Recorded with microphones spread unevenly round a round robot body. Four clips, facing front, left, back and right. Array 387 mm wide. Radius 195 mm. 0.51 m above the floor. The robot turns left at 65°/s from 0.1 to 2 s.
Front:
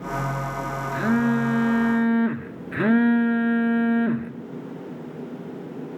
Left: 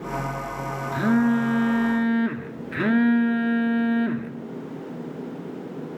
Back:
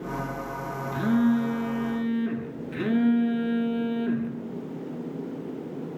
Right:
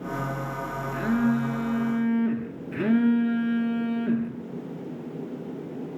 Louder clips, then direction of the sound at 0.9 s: Left 4 dB, front 1 dB; 85° left.